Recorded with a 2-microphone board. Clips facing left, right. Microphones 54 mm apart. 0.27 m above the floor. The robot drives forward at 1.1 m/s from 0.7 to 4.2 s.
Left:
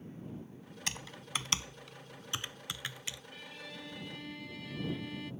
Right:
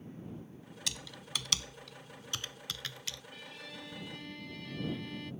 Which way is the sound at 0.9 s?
40° left (ahead or behind).